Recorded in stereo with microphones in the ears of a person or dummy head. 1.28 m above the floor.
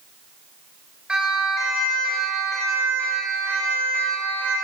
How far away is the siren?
About 8 m.